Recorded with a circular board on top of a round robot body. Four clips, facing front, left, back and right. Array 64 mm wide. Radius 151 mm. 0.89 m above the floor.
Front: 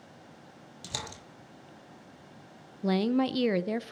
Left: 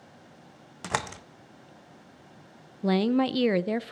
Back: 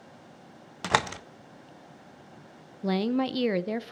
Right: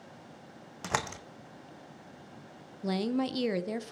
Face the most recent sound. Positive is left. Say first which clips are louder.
# left 7 dB, even
turn(degrees=95)